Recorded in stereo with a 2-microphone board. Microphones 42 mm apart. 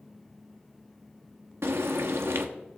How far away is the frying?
About 1.1 m.